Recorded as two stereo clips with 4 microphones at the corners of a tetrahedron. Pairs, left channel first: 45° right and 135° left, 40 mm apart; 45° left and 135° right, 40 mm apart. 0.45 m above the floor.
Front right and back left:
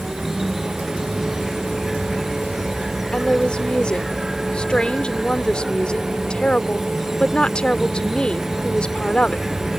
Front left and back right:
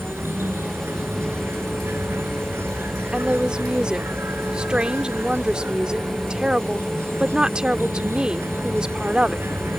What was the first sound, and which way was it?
An insect, 140° right.